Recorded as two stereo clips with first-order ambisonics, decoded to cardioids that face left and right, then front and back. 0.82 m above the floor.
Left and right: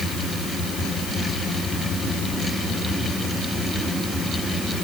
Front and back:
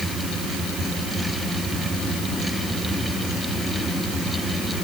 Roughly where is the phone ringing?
I don't hear a phone ringing.